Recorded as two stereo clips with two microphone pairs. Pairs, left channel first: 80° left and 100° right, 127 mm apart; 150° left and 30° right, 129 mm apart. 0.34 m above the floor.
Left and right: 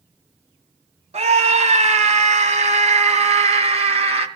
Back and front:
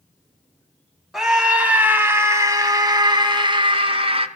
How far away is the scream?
About 2 m.